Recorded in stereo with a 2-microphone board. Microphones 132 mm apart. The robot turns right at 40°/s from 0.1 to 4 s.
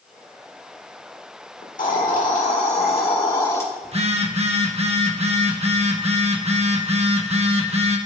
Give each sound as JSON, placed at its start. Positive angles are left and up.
{"t": 1.6, "sound": "a hiss", "azimuth_deg": 80, "distance_m": 1.7}
{"t": 3.8, "sound": "a phone buzzing", "side_deg": -50, "distance_m": 1.0}